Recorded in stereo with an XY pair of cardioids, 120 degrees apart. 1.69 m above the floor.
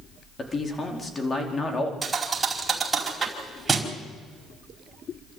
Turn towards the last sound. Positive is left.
turn(degrees=-20)